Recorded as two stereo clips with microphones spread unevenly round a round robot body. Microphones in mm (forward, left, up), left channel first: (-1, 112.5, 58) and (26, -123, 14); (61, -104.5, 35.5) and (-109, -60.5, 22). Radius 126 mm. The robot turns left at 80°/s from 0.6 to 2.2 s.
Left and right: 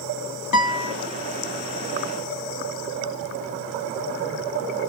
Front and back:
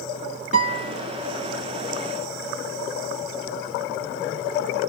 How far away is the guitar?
About 0.9 m.